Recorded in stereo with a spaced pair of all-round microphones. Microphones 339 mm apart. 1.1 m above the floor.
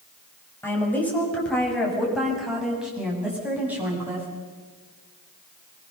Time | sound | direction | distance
0.6 | a woman speaking | 5° left (ahead or behind) | 5.5 m